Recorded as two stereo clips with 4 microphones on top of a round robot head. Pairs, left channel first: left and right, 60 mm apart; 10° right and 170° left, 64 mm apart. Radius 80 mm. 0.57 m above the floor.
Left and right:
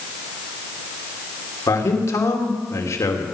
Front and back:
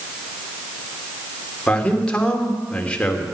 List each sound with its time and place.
1.7 s a man speaking: 65° left, 2.5 m